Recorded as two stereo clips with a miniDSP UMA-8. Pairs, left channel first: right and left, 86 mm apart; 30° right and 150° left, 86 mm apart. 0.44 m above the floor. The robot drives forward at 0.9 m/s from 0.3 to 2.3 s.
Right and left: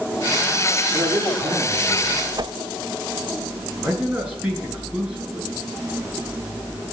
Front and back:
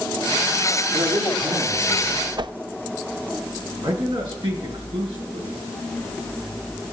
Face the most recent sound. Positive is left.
turn(degrees=165)